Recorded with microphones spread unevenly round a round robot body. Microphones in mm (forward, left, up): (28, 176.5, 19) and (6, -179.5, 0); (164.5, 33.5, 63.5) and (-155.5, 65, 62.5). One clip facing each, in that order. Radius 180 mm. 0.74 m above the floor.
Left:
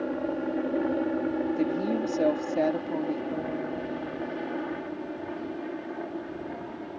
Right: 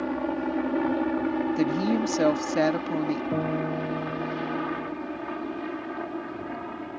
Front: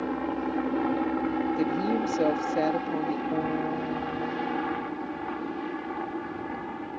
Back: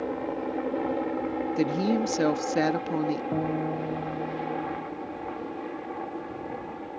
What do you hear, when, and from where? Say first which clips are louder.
0.0 s a helicopter: right 1 dB, front 1 dB; 50° right; by 7.0 s 55° right
1.6 s a woman speaking: right 3 dB, back 1 dB; 130° right
3.3 s a guitar: right 4 dB, even; 125° right